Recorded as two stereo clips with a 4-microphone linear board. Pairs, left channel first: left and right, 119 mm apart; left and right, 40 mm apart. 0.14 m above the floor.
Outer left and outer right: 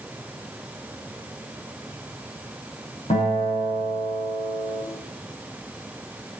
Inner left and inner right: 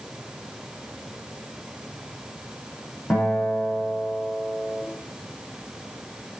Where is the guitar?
55° left (ahead or behind), 4 m.